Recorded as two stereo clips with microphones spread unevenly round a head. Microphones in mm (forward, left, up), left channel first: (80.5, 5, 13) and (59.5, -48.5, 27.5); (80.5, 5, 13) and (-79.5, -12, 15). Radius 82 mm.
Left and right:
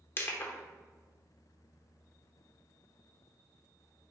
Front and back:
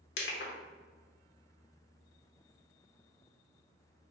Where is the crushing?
15° left, 0.9 m.